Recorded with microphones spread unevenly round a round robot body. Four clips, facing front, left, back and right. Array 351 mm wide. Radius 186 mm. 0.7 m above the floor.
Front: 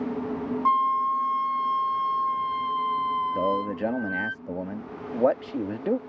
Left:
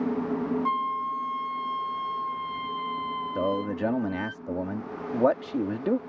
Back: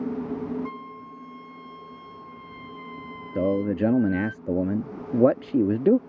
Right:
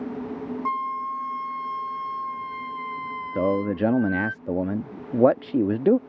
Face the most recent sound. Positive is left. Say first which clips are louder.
# right 6 dB, back 2 dB
turn(degrees=-145)